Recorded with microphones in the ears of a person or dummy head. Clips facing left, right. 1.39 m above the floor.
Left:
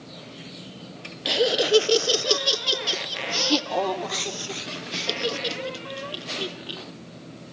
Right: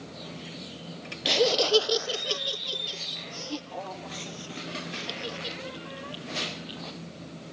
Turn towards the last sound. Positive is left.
turn(degrees=60)  # may be behind; listen again after turning